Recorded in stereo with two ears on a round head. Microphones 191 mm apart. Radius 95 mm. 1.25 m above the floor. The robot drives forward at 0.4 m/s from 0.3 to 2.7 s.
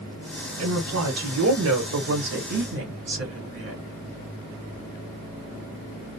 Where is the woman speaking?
75° right (ahead or behind), 1.2 m; by 3.8 s 55° right (ahead or behind), 1.4 m.